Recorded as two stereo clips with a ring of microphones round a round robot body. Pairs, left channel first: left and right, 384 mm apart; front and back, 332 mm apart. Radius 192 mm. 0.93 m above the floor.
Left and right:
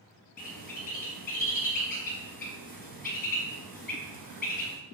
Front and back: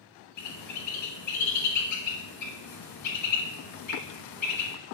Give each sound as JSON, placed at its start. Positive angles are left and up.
{"t": 0.4, "sound": "a bird", "azimuth_deg": 25, "distance_m": 1.3}